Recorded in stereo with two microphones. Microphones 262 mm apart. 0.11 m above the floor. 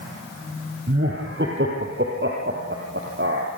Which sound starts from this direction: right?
Laughter, at 0.9 s.